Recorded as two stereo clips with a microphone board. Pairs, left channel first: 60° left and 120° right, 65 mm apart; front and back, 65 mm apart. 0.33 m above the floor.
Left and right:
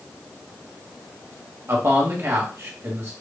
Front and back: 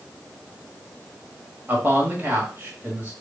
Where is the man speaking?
135° right, 1.4 m.